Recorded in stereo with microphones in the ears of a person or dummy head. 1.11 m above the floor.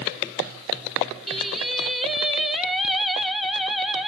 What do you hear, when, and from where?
1.3 s singing: centre (ahead or behind), 0.9 m